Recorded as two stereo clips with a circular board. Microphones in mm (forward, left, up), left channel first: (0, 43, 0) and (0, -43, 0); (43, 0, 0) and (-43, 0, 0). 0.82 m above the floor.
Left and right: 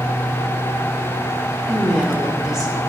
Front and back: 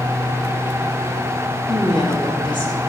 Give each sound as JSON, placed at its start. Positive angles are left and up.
{"t": 1.7, "sound": "a woman speaking", "azimuth_deg": -5, "distance_m": 4.0}